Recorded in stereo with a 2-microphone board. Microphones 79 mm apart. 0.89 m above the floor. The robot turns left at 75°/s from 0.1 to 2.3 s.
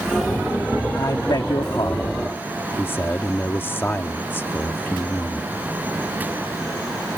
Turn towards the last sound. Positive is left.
turn(degrees=30)